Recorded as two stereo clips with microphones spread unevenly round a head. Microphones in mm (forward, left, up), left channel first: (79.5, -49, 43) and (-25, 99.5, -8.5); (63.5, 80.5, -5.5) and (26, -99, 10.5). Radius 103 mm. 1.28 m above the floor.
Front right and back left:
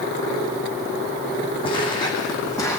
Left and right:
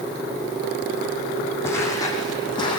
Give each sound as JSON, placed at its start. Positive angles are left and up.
{"t": 1.6, "sound": "footsteps", "azimuth_deg": 0, "distance_m": 4.0}